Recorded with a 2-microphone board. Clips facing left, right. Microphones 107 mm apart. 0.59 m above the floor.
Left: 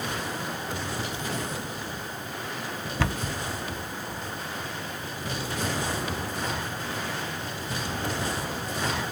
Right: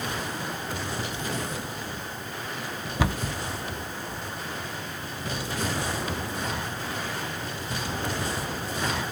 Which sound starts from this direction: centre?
A cupboard door, at 3.0 s.